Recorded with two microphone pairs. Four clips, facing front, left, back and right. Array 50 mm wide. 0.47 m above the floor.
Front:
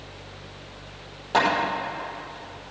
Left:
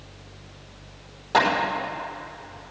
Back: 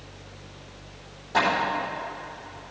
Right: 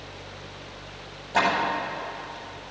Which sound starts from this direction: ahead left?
Hammering, at 1.3 s.